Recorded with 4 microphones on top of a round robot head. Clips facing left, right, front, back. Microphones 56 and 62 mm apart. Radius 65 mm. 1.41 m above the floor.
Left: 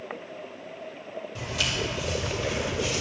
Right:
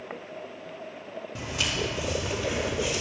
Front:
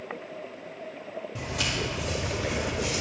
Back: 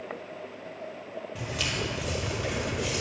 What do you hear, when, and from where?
1.4 s footsteps: 45° right, 2 m; by 3.0 s 10° right, 3 m